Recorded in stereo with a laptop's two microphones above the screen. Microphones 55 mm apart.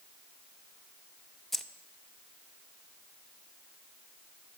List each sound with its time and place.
1.5 s keys jangling: 5° left (ahead or behind), 0.7 m